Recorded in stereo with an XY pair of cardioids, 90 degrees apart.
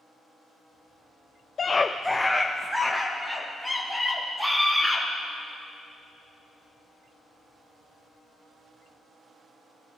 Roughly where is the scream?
Ahead left.